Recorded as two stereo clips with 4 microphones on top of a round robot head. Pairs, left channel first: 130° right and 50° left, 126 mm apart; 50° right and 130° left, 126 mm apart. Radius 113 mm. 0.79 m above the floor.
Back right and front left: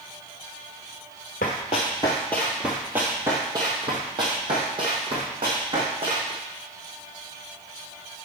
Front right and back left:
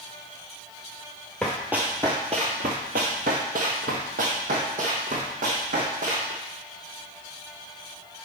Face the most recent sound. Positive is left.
turn(degrees=100)